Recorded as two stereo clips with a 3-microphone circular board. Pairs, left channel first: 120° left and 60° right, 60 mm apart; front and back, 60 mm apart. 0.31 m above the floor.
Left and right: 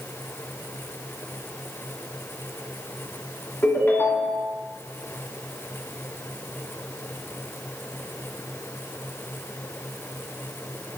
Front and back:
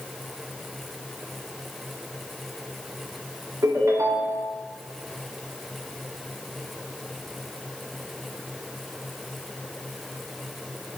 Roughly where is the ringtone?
Behind.